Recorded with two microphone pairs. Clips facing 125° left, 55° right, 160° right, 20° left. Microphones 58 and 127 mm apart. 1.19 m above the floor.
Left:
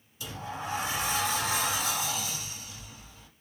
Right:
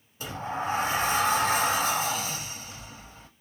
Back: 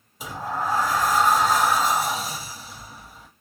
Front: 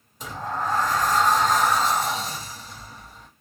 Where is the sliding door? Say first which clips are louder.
Right 6 dB, back 1 dB; 80° right, 0.7 m.